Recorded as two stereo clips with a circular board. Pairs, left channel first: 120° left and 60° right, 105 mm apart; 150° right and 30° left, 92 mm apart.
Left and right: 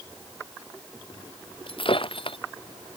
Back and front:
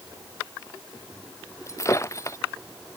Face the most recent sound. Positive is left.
turn(degrees=155)